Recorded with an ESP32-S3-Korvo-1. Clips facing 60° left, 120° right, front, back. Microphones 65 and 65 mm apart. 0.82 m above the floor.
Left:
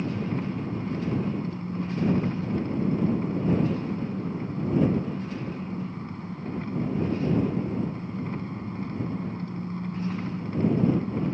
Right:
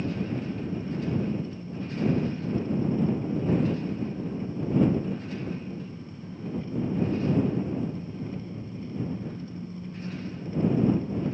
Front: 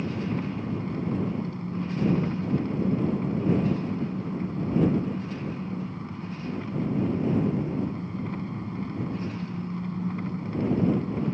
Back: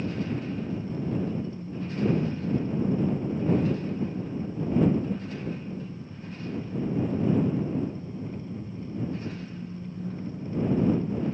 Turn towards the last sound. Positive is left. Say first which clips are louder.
# left 1 dB, front 1 dB
turn(degrees=25)